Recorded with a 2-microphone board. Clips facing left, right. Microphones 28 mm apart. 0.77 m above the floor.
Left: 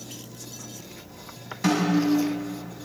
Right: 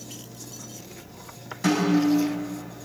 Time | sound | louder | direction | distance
1.6 | a snare drum | right 1 dB | 5° left (ahead or behind) | 5.5 m